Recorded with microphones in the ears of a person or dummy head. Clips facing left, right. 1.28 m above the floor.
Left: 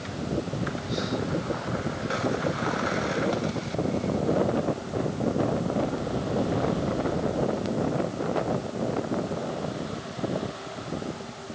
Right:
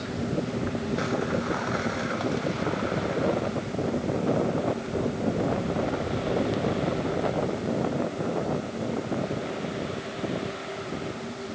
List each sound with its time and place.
Only background noise.